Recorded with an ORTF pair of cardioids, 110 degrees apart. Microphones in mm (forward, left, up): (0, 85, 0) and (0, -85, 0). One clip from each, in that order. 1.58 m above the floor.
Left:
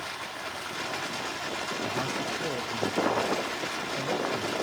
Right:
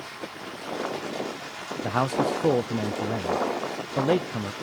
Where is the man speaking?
60° right, 0.6 m.